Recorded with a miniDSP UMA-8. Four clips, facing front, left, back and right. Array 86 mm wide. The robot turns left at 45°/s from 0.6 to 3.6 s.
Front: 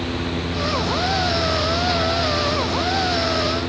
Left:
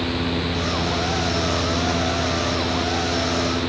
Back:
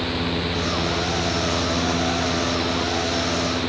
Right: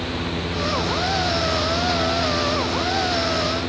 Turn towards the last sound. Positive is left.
No sound to turn to.